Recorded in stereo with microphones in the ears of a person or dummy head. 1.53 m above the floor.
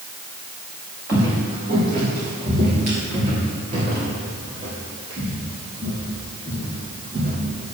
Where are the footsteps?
15° right (ahead or behind), 1.6 m; by 7.8 s 25° right (ahead or behind), 4 m.